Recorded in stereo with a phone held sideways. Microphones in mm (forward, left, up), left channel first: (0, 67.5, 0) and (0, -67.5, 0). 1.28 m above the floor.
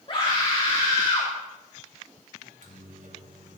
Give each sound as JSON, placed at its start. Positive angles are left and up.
{"t": 0.1, "sound": "a scream", "side_deg": 40, "distance_m": 3.5}
{"t": 2.4, "sound": "a microwave", "side_deg": -70, "distance_m": 3.0}